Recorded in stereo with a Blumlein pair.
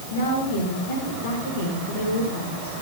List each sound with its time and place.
0.1 s a woman speaking: 60° left, 6 m